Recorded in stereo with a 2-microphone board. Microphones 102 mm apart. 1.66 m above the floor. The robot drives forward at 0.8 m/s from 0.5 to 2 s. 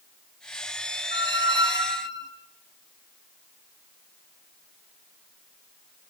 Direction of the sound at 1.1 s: 50° right (ahead or behind).